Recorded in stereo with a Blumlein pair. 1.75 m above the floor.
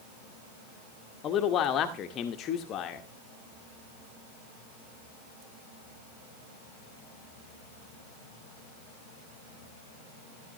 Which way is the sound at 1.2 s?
30° left.